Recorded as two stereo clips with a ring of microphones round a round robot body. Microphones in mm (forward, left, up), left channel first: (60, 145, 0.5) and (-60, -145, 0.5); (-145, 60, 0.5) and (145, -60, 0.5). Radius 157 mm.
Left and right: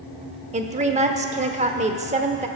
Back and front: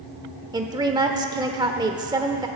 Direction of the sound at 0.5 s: 80° right.